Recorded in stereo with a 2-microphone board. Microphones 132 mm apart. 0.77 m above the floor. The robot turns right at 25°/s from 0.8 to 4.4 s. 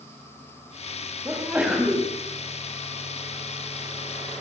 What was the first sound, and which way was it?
A sneeze, 20° right (ahead or behind).